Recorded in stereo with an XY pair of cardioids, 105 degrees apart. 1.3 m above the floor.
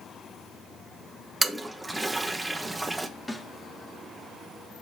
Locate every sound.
1.4 s a toilet flushing: 10° right, 0.8 m
3.3 s a snare drum: 10° left, 1.1 m